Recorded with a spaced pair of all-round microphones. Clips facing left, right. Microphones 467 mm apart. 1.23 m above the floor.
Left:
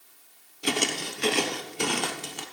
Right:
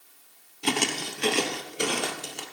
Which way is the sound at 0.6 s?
15° right (ahead or behind).